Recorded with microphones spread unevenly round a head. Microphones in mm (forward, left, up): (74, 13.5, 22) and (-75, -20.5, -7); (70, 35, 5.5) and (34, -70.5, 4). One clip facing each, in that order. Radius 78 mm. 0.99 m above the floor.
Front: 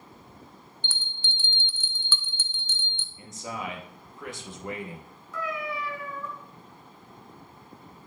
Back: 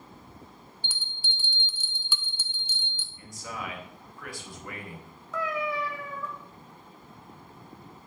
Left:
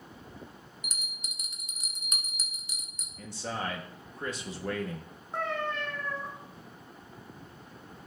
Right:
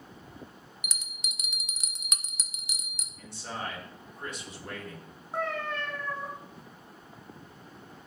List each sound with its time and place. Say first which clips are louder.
0.8 s a bell: front 1 dB, right 1 dB; 85° right, 0.7 m
3.2 s a man speaking: front 3 dB, left 3 dB; 85° left, 1.5 m
5.3 s a cat meowing: back 3 dB, even; 165° left, 2.5 m